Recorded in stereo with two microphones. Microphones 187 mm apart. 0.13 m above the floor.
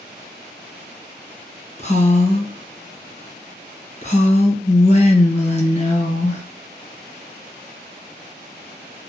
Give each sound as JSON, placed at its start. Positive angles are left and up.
{"t": 1.8, "sound": "a woman speaking", "side_deg": 35, "distance_m": 1.4}